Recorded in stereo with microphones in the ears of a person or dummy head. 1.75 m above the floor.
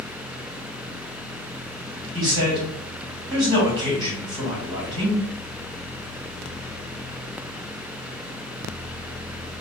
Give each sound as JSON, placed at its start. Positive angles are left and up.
{"t": 2.1, "sound": "a man speaking", "side_deg": -30, "distance_m": 2.5}